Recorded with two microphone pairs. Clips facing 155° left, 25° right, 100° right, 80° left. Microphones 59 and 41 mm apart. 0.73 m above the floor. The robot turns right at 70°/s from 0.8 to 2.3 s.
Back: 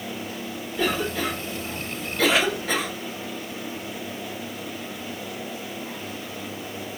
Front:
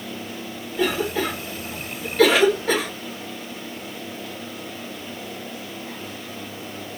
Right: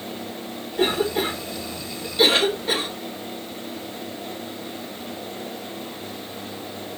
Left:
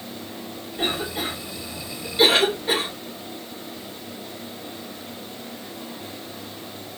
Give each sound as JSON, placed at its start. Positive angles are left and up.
{"t": 0.8, "sound": "a cough", "azimuth_deg": -100, "distance_m": 2.5}